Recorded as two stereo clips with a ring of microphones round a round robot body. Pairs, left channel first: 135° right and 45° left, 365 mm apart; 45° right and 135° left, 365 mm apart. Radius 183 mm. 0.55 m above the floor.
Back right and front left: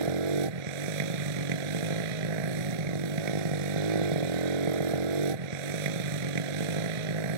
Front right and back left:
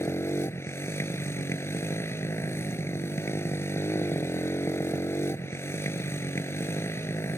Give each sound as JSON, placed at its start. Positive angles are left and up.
{"t": 0.0, "sound": "a motorcycle", "azimuth_deg": 40}